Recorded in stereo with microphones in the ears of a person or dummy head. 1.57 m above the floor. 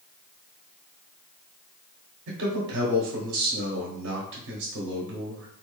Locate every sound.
2.3 s a man speaking: 60° right (ahead or behind), 1.0 m